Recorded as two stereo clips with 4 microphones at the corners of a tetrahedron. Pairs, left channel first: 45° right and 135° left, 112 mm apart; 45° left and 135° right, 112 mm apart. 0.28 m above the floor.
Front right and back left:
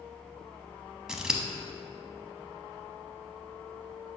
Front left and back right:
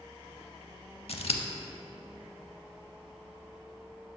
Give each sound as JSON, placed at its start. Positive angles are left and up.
{"t": 1.1, "sound": "scissors", "azimuth_deg": 55, "distance_m": 0.5}